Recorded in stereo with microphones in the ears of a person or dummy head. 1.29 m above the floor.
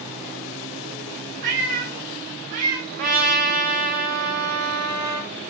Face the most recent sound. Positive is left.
turn(degrees=-35)  # may be behind; listen again after turning